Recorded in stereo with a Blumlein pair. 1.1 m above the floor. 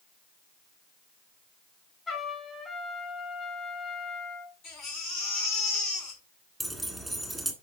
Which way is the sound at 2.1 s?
20° left.